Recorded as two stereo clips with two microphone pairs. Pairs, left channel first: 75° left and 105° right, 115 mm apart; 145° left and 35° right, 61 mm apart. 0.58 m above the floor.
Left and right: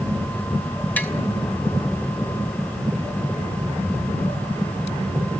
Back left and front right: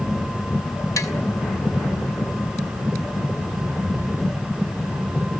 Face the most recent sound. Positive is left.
turn(degrees=145)